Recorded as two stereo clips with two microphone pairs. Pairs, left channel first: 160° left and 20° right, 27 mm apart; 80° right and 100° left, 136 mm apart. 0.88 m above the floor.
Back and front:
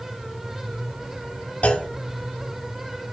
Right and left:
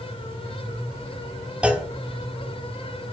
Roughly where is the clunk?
Behind.